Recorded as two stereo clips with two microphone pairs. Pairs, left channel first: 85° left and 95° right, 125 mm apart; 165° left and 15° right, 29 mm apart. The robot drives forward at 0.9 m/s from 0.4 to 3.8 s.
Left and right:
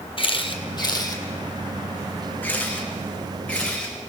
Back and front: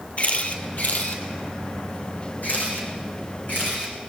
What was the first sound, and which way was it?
A camera shutter, 130° left.